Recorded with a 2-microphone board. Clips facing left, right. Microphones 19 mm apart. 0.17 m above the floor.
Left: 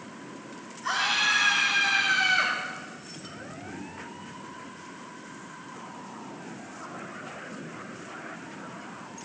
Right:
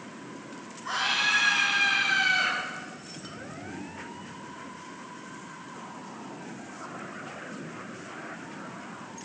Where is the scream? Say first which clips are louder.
Left 1 dB; 35° left (ahead or behind), 10 m; by 2.5 s 40° left (ahead or behind), 7.5 m.